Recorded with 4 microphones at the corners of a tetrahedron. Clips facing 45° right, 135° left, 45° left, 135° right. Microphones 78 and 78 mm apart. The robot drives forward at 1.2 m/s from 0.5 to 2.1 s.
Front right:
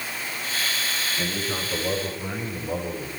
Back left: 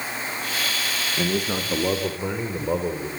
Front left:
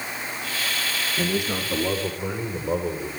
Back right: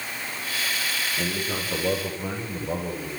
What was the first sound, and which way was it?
A man speaking, 115° left.